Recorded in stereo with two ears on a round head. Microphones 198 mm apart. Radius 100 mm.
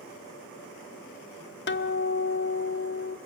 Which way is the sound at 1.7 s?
50° left (ahead or behind).